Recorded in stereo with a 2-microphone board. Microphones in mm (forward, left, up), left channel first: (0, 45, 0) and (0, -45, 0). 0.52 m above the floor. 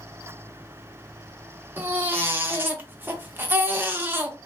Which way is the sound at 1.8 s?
20° right (ahead or behind).